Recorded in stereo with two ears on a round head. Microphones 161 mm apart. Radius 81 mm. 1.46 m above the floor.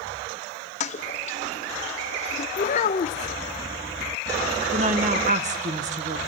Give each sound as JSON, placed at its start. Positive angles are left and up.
{"t": 0.8, "sound": "a toilet flushing", "side_deg": 40, "distance_m": 1.0}
{"t": 2.6, "sound": "a child speaking", "side_deg": 40, "distance_m": 0.6}
{"t": 4.7, "sound": "a woman speaking", "side_deg": -40, "distance_m": 1.5}